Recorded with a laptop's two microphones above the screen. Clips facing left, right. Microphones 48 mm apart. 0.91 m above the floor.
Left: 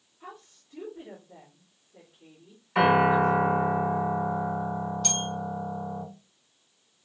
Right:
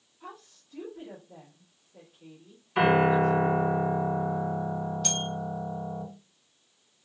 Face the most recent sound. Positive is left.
turn(degrees=-5)  # may be behind; listen again after turning